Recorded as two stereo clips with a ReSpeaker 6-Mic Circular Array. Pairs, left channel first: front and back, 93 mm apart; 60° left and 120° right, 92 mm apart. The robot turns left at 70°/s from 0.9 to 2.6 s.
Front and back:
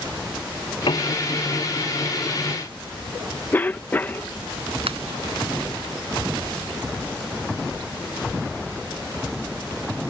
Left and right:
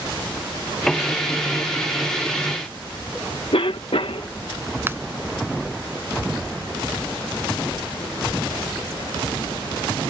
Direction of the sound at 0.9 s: 25° right.